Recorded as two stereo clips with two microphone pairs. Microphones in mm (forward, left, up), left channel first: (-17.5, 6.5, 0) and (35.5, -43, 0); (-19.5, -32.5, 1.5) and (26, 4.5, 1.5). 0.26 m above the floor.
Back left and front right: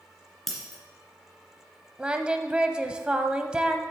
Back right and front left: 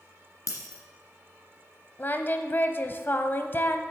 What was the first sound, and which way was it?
Breaking glass, 135° right.